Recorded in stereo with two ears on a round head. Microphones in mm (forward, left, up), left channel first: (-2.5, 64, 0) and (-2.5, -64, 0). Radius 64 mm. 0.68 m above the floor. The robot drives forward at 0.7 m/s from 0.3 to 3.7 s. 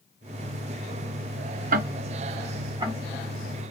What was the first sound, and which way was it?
Ticking, 60° right (ahead or behind).